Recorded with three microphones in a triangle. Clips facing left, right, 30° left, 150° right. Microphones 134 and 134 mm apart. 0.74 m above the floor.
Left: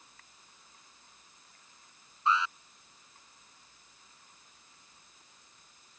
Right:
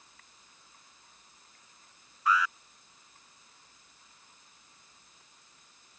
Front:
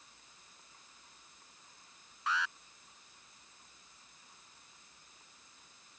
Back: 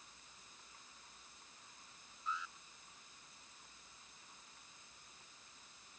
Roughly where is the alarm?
Ahead left.